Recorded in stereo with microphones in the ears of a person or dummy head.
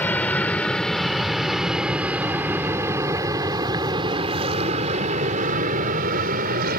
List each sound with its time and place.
0.0 s an aircraft: 10° left (ahead or behind); by 6.8 s 50° right (ahead or behind)